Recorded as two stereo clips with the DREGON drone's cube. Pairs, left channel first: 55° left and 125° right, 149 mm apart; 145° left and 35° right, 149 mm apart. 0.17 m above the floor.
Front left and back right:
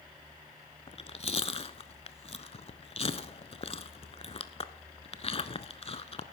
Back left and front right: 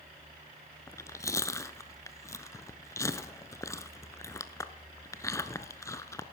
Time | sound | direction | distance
0.9 | chewing | 85° left | 0.6 m